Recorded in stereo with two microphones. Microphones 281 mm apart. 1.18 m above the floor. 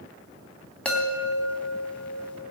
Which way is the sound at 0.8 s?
5° left (ahead or behind).